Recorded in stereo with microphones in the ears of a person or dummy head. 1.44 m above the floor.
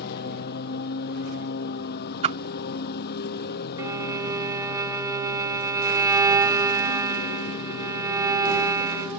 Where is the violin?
10° right (ahead or behind).